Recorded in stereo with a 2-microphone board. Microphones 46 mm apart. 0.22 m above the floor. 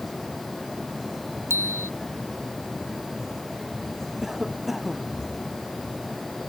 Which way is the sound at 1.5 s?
80° right.